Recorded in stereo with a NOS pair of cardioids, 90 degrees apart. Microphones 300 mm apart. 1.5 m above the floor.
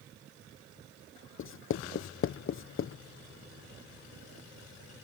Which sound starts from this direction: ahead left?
Writing, at 1.4 s.